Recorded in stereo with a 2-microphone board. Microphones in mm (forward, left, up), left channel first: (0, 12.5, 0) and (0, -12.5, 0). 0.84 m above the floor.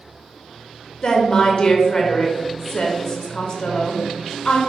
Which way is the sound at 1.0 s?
30° left (ahead or behind).